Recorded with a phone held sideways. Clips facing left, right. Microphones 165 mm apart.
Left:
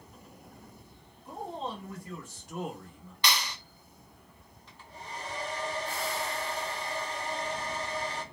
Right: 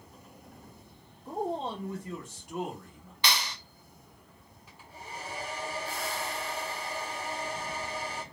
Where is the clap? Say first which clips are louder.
Even; 10° right (ahead or behind), 0.9 m.